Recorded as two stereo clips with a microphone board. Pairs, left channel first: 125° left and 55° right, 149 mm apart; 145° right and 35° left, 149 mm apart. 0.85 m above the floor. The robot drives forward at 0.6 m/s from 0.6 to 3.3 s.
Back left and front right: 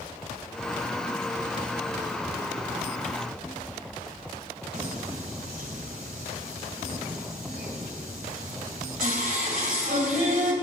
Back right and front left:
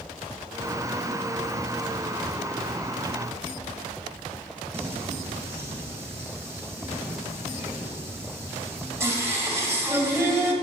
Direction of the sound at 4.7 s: 35° right.